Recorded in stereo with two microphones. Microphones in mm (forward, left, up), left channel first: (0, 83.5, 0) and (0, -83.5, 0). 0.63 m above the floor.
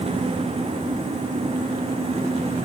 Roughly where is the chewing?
I don't hear chewing.